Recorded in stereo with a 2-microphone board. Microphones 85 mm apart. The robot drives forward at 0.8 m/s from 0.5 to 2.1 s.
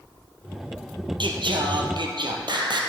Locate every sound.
1.2 s singing: 75° right (ahead or behind), 1.8 m; by 2.8 s 65° right (ahead or behind), 1.9 m